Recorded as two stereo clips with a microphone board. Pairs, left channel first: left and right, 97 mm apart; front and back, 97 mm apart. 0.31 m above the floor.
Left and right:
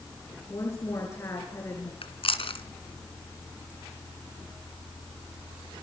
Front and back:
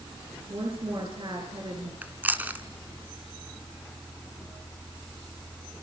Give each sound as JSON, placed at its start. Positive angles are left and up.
{"t": 0.5, "sound": "a woman speaking", "azimuth_deg": 155, "distance_m": 5.5}
{"t": 2.0, "sound": "chewing", "azimuth_deg": 110, "distance_m": 2.0}